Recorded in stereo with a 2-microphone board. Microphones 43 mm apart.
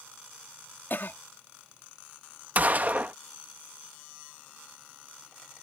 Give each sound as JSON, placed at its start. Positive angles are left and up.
{"t": 0.9, "sound": "a cough", "side_deg": 55}
{"t": 2.5, "sound": "a gunshot", "side_deg": -40}